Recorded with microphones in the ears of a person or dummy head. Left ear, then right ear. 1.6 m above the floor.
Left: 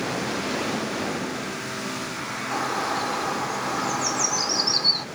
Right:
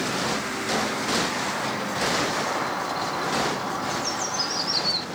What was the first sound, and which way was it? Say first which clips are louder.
A bird: left 1 dB; 85° left.